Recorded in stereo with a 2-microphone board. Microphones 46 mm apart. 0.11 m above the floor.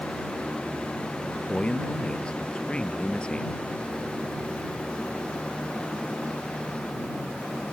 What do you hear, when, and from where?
1.5 s a man speaking: 25° left (ahead or behind)